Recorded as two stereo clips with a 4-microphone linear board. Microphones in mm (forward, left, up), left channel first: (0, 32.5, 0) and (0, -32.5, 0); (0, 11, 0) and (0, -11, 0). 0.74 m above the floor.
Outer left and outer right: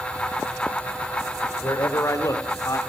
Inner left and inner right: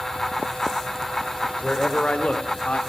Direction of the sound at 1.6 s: 60° left (ahead or behind).